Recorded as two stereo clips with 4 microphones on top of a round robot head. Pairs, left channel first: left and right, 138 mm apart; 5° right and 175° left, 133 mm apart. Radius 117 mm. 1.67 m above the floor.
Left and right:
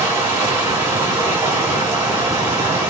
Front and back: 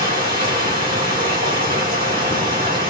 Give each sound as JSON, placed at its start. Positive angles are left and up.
{"t": 0.0, "sound": "running water", "azimuth_deg": -155, "distance_m": 2.5}